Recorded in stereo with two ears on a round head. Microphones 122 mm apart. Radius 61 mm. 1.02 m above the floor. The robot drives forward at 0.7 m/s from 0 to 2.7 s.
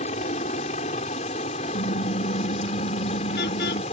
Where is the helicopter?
50° left (ahead or behind).